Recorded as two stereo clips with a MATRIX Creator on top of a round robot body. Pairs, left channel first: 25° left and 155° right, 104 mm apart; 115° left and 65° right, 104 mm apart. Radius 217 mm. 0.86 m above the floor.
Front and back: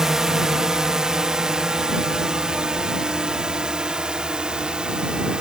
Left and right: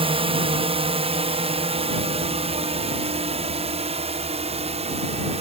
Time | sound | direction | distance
0.0 | a drone | 70° right | ?